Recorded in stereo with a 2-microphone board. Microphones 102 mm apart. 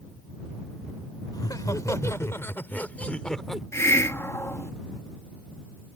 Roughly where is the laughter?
Left.